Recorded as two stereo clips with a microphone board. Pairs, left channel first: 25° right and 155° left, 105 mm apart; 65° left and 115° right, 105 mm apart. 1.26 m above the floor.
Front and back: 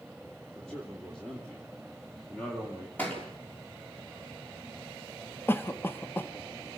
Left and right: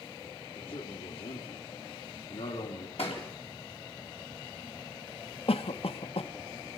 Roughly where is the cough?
Ahead left.